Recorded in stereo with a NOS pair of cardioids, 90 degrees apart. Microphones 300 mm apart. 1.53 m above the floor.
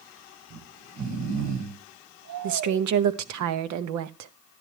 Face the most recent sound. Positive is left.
turn(degrees=-70)